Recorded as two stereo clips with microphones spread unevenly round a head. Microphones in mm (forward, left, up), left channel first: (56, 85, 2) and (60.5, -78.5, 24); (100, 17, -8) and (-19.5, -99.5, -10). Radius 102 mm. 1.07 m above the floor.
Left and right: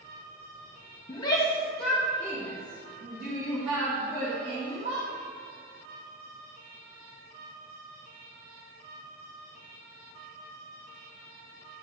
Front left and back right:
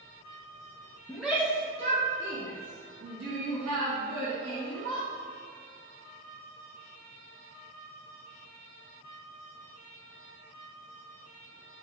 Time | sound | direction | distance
1.1 | a shout | 130° left | 1.0 m